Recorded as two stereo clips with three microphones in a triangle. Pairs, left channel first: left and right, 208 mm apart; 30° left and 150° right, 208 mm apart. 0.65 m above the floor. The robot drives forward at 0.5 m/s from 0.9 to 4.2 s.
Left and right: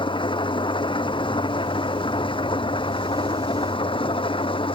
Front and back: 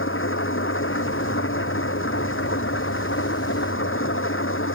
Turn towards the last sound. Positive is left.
turn(degrees=25)